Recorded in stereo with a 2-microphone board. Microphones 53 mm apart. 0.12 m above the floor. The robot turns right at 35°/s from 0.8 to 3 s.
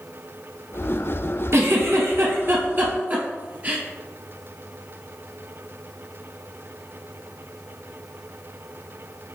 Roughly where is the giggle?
Right.